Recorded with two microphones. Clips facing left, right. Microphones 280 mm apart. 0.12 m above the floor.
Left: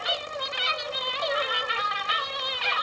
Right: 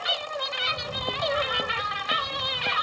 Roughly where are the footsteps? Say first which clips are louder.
Right 1 dB; right.